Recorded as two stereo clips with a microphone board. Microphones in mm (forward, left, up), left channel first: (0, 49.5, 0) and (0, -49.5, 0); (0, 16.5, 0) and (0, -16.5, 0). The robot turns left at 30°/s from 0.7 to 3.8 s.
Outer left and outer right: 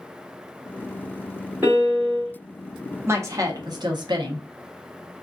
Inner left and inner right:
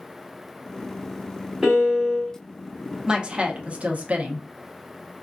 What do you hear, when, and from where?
1.6 s a piano: 20° right (ahead or behind), 2 m; by 2.3 s centre (ahead or behind), 2 m
3.1 s a woman speaking: 25° right (ahead or behind), 0.9 m; by 4.5 s 45° right (ahead or behind), 0.9 m